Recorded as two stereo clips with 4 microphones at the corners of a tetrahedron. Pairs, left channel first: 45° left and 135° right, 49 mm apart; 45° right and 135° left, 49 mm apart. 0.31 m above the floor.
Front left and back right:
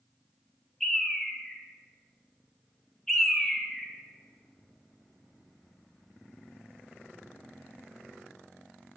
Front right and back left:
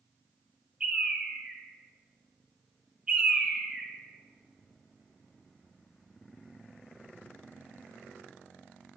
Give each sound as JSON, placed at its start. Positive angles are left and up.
{"t": 0.8, "sound": "a bird", "azimuth_deg": 115, "distance_m": 1.0}